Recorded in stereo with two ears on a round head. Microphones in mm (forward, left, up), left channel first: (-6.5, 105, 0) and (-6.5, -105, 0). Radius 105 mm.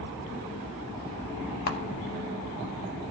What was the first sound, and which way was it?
A camera shutter, 45° left (ahead or behind).